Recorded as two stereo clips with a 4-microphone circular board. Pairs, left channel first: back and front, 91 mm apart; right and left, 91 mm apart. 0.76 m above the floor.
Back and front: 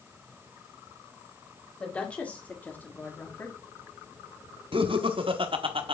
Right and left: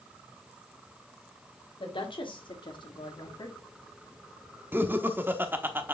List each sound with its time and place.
1.8 s a woman speaking: 100° right, 2.5 m; by 3.6 s 120° right, 1.9 m
4.7 s laughter: 20° left, 1.2 m